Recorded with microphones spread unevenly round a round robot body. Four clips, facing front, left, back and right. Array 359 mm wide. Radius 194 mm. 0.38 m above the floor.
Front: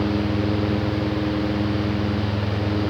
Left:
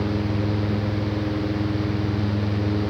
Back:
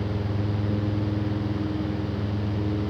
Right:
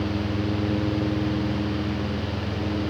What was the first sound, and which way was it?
Only background noise.